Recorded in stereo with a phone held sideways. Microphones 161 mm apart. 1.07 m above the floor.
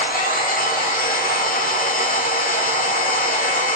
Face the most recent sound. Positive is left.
turn(degrees=60)  # may be behind; listen again after turning